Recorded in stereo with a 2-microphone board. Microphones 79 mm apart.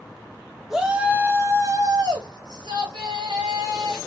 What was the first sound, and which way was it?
A shout, 5° right (ahead or behind).